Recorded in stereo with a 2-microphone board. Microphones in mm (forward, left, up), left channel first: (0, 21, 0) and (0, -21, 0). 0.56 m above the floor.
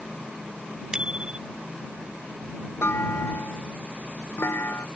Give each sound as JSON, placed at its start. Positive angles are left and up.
{"t": 0.9, "sound": "a bicycle bell", "side_deg": -20}
{"t": 2.8, "sound": "a clunk", "side_deg": 65}